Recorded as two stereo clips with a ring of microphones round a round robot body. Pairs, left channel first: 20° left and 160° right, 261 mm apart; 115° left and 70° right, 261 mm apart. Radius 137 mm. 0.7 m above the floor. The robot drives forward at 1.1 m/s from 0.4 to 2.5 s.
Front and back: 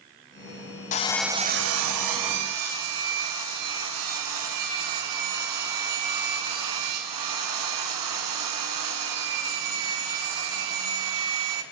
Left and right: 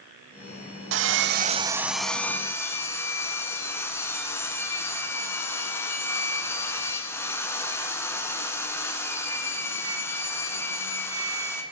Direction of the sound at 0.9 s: 35° right.